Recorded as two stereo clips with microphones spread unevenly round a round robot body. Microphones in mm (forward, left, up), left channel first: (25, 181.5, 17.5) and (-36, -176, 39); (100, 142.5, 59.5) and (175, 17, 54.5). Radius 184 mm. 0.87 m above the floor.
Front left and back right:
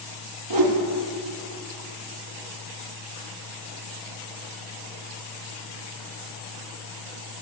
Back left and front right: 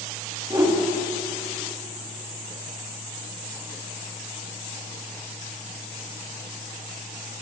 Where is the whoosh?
130° right, 1.6 m.